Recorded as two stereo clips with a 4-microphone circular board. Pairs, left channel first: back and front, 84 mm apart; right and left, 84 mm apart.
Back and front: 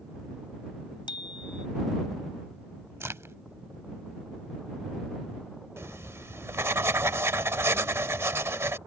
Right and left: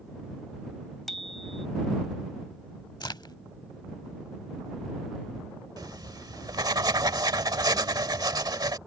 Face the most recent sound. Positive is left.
turn(degrees=55)